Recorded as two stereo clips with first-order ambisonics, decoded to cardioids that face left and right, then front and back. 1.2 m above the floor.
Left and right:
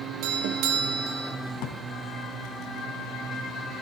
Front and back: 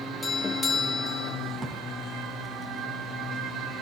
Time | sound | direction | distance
0.2 | a doorbell | 75° right | 2.5 m
1.6 | a drawer | 110° left | 4.5 m